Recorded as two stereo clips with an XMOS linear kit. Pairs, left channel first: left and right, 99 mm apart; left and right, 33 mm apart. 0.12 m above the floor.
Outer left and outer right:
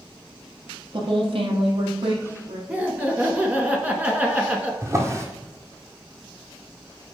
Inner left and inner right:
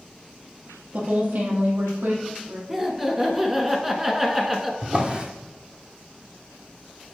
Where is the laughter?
15° right (ahead or behind), 1.1 m.